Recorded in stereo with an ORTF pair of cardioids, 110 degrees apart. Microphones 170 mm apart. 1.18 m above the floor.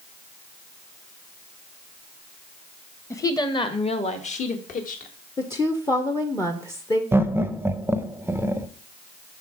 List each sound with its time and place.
3.1 s a woman speaking: 15° left, 1.1 m; by 5.1 s 55° left, 1.7 m
5.4 s a woman speaking: 20° left, 0.8 m
7.1 s laughter: 15° right, 0.7 m